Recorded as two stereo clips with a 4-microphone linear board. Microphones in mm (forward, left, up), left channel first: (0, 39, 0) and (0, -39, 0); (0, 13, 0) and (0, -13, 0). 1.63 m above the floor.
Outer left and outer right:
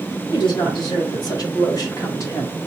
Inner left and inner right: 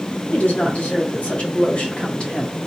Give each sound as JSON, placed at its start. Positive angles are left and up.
{"t": 0.3, "sound": "a woman speaking", "side_deg": 65, "distance_m": 2.5}